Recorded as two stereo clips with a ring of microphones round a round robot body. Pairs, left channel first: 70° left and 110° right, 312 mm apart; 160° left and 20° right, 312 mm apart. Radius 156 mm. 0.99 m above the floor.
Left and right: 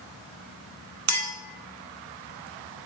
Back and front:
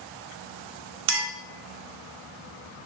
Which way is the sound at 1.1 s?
75° right.